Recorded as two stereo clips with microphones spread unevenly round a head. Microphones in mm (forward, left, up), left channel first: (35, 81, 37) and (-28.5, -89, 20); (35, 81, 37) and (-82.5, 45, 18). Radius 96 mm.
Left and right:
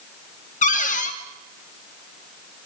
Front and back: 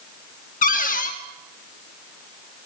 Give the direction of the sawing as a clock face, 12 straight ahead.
No sawing in this recording.